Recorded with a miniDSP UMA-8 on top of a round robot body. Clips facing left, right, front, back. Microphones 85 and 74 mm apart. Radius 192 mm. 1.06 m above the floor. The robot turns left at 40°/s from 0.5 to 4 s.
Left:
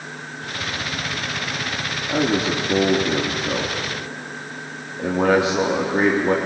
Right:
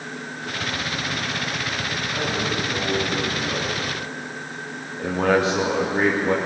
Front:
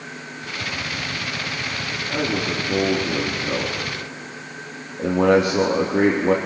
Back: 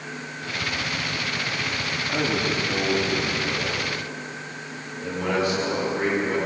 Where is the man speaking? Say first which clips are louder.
Left 7 dB, front 1 dB; 90° left, 3 m; by 6.3 s 15° left, 3 m.